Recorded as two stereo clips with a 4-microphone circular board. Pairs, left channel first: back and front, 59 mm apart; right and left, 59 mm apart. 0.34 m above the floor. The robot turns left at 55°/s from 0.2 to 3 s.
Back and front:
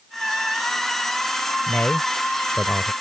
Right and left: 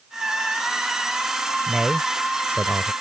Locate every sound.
1.7 s a man speaking: 165° left; by 2.9 s 95° left